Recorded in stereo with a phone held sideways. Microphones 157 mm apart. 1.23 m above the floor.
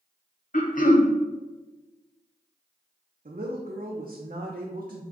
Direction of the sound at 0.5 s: 60° left (ahead or behind).